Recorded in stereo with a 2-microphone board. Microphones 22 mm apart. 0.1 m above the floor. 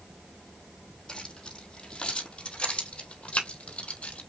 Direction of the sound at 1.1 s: 35° left (ahead or behind).